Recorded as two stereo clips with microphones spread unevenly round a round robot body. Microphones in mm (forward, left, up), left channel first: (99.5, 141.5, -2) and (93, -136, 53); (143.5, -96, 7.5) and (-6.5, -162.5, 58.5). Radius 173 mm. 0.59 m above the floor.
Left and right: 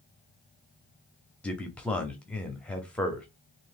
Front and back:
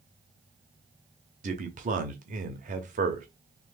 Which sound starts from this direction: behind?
A man speaking, at 1.4 s.